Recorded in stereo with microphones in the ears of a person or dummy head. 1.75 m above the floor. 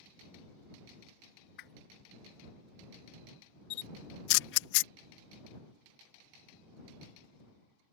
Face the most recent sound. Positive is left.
turn(degrees=75)  # may be behind; listen again after turning